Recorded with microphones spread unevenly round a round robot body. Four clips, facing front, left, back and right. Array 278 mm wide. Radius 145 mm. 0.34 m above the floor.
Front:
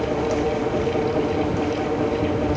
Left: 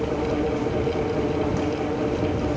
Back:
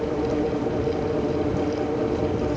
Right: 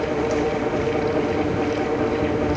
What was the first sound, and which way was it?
Only background noise.